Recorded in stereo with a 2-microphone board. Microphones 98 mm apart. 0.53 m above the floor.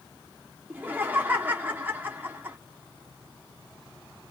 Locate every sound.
0.7 s laughter: 20° right (ahead or behind), 0.7 m